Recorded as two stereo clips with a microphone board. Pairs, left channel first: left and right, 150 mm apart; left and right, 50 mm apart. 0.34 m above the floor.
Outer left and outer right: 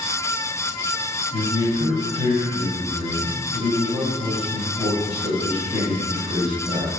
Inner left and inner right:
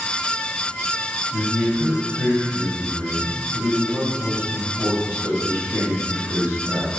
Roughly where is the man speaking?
Right.